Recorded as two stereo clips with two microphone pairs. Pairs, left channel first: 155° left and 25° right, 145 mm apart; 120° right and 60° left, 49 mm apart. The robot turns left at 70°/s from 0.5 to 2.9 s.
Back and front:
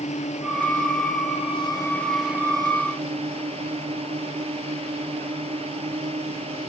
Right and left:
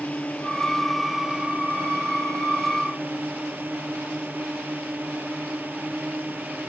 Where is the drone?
Straight behind; by 6.7 s 15° left.